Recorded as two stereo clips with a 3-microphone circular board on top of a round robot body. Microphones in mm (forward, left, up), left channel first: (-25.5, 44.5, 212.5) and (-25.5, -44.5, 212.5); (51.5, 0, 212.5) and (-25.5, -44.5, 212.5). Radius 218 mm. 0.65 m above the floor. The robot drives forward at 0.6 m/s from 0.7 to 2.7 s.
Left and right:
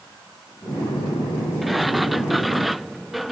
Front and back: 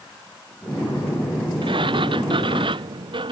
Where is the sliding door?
Straight behind.